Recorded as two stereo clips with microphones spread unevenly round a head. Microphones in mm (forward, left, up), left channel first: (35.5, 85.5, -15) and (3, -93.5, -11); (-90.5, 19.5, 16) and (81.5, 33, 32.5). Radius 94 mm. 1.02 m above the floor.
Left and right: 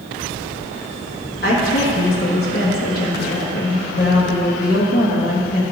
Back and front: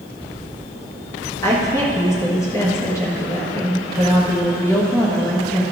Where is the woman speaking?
115° left, 1.5 m.